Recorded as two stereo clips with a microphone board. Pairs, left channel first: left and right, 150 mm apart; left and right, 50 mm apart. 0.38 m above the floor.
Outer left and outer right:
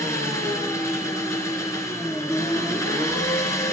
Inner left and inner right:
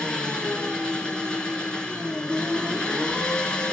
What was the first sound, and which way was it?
An engine running, 20° left (ahead or behind).